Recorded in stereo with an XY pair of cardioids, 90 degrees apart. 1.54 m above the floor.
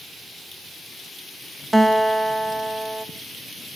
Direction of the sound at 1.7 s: 10° right.